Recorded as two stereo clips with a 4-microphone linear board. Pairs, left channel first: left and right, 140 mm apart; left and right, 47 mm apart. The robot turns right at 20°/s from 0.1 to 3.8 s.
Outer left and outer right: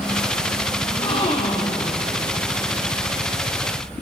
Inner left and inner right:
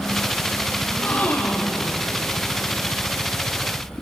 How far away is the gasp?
About 5.5 m.